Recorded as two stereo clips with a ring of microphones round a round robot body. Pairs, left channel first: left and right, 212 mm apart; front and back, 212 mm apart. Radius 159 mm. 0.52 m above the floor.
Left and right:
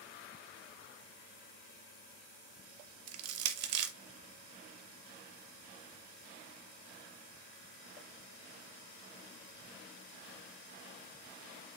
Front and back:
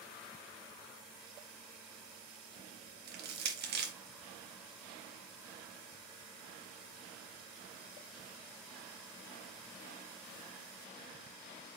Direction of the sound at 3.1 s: 120° right.